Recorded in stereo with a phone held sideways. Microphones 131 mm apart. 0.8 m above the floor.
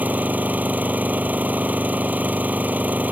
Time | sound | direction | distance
0.0 | an engine running | 10° right (ahead or behind) | ?